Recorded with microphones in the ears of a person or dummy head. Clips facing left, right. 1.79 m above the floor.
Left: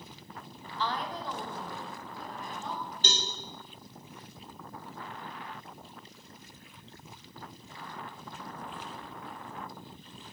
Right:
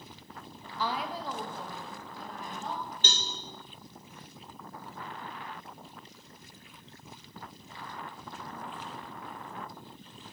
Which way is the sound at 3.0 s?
35° left (ahead or behind).